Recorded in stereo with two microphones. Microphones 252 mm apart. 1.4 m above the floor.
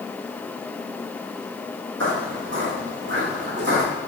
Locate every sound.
2.0 s footsteps: 55° right (ahead or behind), 2.5 m; by 3.9 s 45° right (ahead or behind), 3.5 m